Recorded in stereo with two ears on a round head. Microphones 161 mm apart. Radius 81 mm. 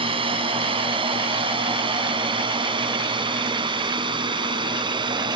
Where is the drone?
30° right (ahead or behind); by 5.4 s 25° right (ahead or behind).